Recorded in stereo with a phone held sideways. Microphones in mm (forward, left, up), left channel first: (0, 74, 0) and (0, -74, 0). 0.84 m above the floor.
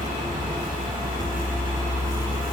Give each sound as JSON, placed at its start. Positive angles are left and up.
{"t": 0.0, "sound": "a vehicle", "side_deg": -70}